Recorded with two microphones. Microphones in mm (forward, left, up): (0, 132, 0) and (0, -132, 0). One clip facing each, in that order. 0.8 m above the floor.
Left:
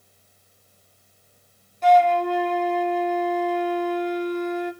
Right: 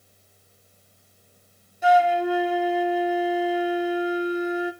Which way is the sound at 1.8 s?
5° right (ahead or behind).